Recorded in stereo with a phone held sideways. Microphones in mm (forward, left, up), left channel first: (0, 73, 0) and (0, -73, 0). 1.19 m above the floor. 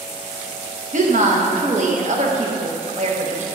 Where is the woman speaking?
55° right (ahead or behind), 1.0 m.